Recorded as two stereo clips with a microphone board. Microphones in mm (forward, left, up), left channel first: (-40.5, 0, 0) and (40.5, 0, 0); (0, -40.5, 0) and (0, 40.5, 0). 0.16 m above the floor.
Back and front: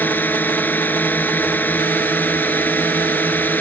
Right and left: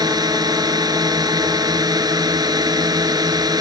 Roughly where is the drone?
Behind left.